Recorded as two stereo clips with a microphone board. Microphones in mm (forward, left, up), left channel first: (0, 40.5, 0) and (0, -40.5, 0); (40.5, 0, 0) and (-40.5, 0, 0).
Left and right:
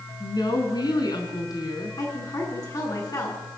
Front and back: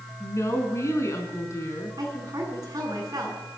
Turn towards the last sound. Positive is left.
turn(degrees=135)